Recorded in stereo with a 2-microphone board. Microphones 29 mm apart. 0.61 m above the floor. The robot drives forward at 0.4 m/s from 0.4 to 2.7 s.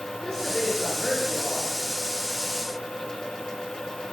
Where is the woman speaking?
25° left (ahead or behind), 7.5 m; by 1.7 s 20° left (ahead or behind), 7.5 m.